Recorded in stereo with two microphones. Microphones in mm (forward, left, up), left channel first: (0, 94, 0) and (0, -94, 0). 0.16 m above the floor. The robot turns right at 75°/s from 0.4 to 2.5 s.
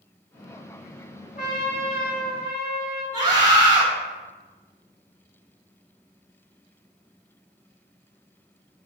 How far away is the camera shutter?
I don't hear a camera shutter.